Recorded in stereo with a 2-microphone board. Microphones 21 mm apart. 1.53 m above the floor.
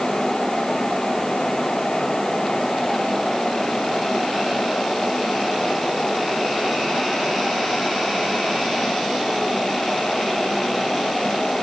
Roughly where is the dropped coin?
I don't hear a dropped coin.